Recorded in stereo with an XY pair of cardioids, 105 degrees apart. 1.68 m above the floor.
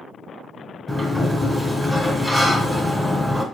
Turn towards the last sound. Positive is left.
turn(degrees=0)